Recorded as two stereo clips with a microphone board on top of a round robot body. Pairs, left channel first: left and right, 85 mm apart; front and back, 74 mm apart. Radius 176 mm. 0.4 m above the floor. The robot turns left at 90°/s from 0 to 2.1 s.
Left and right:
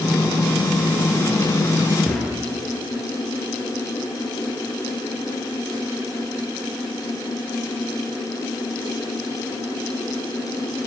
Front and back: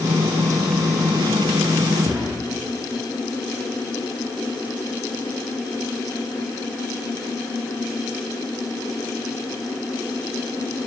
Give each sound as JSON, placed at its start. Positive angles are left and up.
{"t": 2.0, "sound": "a thud", "azimuth_deg": 180, "distance_m": 7.0}